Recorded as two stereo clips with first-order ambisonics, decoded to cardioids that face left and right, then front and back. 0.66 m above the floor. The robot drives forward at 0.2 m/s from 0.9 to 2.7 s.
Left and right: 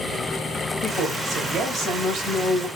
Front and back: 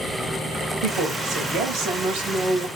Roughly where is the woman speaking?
Behind.